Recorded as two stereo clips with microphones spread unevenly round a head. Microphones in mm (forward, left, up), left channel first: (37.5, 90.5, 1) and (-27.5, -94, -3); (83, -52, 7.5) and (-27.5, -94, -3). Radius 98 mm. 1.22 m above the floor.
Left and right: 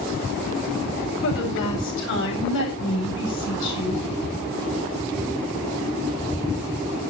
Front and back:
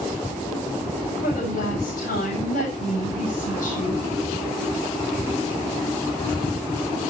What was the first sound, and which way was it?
A woman speaking, 45° left.